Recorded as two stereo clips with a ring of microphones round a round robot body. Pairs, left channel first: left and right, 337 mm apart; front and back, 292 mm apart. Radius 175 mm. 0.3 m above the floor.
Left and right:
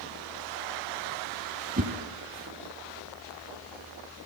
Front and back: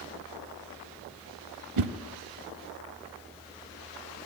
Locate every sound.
1.8 s a whoosh: 155° right, 0.6 m